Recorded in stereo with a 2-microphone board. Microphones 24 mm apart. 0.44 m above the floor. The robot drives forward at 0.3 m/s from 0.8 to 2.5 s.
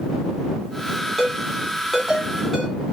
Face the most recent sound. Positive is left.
turn(degrees=0)  # may be behind; listen again after turning